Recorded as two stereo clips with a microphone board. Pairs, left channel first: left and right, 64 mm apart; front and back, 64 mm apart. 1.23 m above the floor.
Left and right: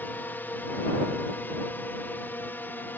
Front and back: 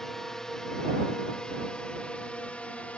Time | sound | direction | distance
0.0 | a drone | 75° left | ?